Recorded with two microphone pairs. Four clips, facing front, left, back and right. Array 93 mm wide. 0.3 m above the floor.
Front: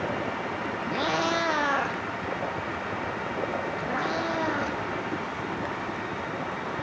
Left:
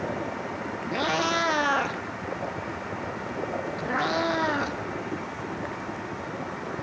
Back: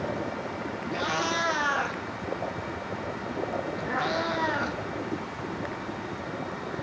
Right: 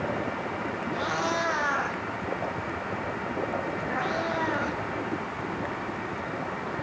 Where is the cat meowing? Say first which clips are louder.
Left 4 dB, front 2 dB; 55° left, 2 m; by 6.7 s 90° left, 5.5 m.